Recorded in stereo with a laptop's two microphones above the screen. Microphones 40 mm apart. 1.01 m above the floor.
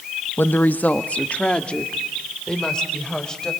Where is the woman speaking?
60° left (ahead or behind), 1.0 m; by 3.5 s 20° left (ahead or behind), 5 m.